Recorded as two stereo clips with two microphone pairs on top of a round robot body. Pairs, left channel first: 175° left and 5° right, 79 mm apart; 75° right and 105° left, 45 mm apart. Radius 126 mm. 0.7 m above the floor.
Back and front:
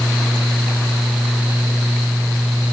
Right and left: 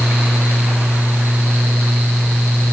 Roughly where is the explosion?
No explosion in this recording.